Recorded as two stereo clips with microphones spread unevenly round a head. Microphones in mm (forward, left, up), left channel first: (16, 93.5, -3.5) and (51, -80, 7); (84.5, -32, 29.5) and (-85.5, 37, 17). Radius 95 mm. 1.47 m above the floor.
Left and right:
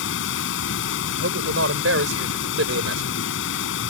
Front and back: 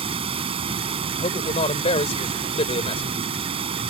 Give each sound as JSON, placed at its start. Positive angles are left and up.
{"t": 0.0, "sound": "running water", "azimuth_deg": 95}
{"t": 1.2, "sound": "a man speaking", "azimuth_deg": -80}